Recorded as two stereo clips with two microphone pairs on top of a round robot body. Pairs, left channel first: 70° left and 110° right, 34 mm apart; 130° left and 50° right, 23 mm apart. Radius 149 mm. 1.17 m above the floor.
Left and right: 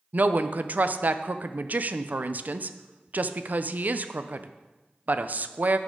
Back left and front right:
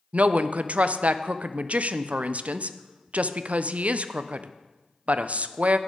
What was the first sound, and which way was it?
A woman speaking, 65° right.